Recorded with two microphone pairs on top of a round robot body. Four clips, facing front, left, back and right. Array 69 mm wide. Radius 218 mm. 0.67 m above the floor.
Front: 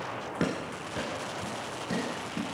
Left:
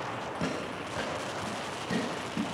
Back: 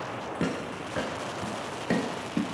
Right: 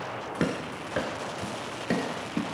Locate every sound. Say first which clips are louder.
0.4 s running footsteps: right 6 dB, even; 45° right, 0.7 m; by 2.4 s 145° right, 1.5 m